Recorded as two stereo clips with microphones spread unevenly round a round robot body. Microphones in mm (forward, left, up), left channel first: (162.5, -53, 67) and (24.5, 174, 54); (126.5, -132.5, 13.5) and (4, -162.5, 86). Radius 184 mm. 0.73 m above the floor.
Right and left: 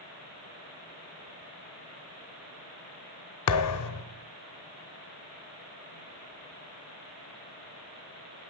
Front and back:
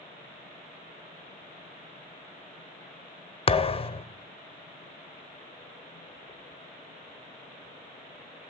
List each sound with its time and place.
3.5 s a thud: 55° right, 0.5 m